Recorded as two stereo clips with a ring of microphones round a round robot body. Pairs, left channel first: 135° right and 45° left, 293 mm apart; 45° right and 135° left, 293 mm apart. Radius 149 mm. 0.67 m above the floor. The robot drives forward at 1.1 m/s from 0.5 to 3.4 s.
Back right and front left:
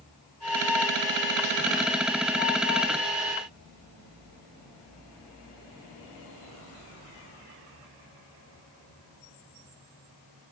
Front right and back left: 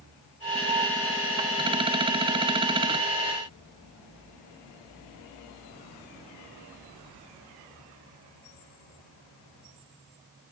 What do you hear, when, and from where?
Only background noise.